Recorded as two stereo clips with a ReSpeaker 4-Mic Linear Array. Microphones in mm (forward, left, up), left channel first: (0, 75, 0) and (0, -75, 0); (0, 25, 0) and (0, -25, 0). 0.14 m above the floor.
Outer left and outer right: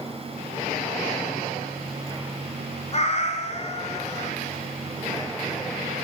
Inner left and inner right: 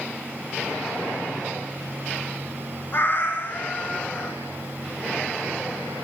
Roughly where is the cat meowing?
Left.